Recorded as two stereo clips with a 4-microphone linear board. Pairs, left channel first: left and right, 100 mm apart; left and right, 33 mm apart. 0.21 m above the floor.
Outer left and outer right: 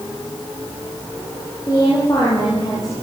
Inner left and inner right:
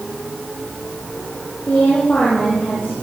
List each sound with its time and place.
1.7 s a woman speaking: 35° left (ahead or behind), 9 m